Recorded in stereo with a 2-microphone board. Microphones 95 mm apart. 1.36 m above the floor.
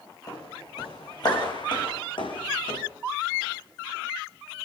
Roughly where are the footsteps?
Left.